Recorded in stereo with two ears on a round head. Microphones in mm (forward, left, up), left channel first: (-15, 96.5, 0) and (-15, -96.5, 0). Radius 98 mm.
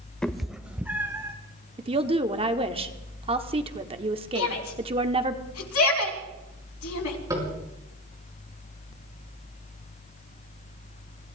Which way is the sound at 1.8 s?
25° right (ahead or behind).